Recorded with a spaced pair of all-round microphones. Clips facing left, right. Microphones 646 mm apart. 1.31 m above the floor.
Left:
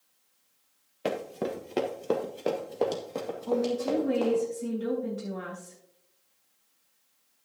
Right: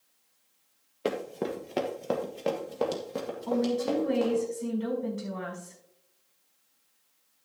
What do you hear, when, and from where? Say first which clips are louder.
1.1 s running footsteps: right 1 dB; 20° left (ahead or behind), 1.5 m; by 4.4 s 45° right (ahead or behind), 3.5 m
3.5 s a woman speaking: even; 30° right (ahead or behind), 5 m